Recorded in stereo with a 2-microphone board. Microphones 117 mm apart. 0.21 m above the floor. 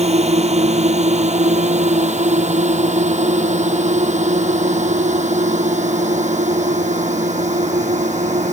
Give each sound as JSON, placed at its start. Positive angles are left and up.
{"t": 0.0, "sound": "a drone", "side_deg": -65}